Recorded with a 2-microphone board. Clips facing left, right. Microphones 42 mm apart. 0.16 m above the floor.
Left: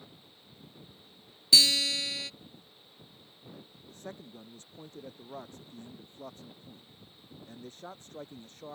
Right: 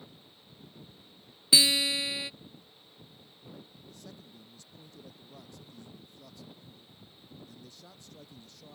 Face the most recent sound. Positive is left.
turn(degrees=40)  # may be behind; listen again after turning